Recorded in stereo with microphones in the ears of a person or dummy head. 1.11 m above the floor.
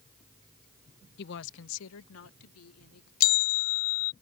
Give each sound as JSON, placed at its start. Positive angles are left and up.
{"t": 1.2, "sound": "a woman speaking", "side_deg": 55}
{"t": 3.2, "sound": "a bell", "side_deg": 50}